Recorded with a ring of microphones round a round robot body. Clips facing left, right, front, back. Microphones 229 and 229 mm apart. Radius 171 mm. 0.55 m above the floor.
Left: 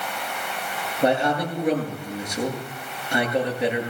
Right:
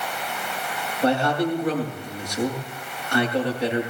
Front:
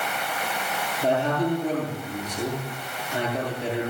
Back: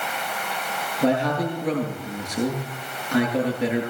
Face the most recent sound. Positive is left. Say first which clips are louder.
# even, back 2 dB
turn(degrees=160)